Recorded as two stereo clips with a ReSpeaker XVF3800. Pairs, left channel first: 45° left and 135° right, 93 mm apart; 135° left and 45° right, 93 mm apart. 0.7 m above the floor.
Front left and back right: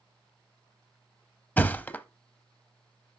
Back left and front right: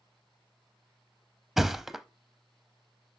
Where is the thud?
35° left, 0.5 m.